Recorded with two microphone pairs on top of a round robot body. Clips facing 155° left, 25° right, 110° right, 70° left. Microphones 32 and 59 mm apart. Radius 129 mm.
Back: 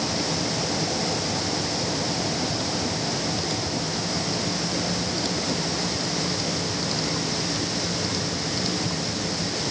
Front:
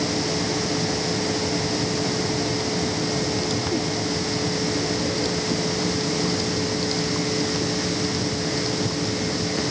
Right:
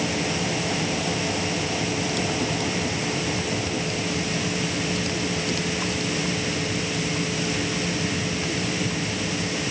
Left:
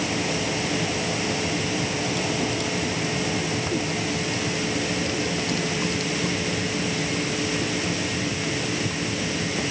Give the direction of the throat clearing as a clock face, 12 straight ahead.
No throat clearing in this recording.